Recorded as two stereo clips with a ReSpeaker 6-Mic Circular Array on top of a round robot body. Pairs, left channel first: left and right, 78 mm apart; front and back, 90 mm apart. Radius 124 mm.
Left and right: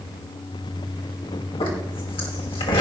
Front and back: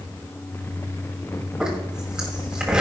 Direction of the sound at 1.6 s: 100° left.